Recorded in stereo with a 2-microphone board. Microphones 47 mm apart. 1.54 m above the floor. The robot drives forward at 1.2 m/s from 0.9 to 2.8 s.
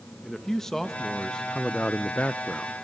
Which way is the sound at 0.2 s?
10° left (ahead or behind).